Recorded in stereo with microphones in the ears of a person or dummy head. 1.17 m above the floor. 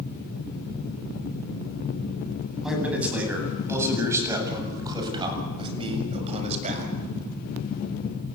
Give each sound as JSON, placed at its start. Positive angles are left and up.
{"t": 2.6, "sound": "a man speaking", "side_deg": -5, "distance_m": 9.5}